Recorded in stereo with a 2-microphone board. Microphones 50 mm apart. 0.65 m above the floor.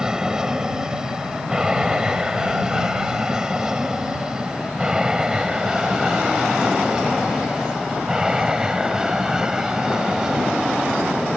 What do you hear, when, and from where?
0.0 s an aircraft: 15° right (ahead or behind); by 11.4 s 10° right (ahead or behind)